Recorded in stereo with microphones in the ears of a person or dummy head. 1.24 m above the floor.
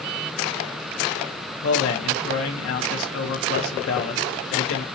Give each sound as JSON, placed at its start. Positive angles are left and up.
{"t": 1.6, "sound": "a man speaking", "side_deg": 85, "distance_m": 0.7}